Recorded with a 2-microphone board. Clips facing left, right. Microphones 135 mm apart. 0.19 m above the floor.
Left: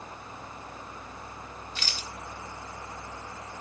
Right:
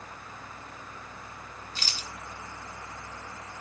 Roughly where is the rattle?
Right.